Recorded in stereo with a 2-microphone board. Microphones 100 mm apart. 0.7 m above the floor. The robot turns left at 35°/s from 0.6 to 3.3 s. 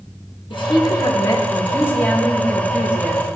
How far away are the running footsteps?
No running footsteps in this recording.